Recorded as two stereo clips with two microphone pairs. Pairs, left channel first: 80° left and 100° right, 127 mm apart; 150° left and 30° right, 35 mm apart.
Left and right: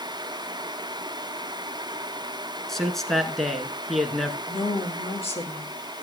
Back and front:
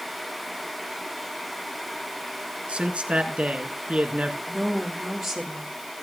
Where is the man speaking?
5° right, 1.2 m.